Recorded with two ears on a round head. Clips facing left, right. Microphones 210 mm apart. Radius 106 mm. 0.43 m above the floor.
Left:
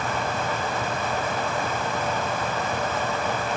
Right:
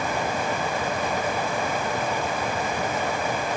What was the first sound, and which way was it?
Only background noise.